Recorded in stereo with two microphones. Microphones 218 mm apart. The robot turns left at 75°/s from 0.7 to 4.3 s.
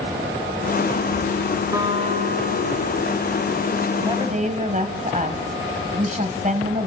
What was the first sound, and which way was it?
A guitar, 15° right.